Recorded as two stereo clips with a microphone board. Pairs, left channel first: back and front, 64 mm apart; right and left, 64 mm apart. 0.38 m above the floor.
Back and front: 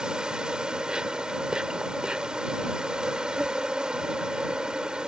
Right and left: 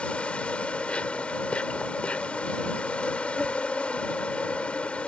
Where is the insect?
55° right.